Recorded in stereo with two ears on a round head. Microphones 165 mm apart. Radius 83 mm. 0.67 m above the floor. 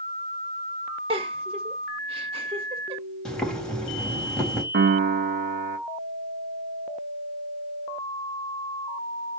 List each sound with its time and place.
1.1 s a giggle: 30° right (ahead or behind), 1.8 m
3.2 s boiling: 5° left (ahead or behind), 4 m
4.7 s a piano: 55° right (ahead or behind), 1.3 m